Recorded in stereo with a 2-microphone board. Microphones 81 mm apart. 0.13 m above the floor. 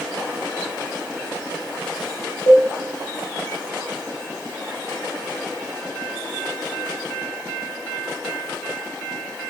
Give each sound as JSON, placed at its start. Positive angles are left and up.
{"t": 2.5, "sound": "a cowbell", "side_deg": 65, "distance_m": 6.5}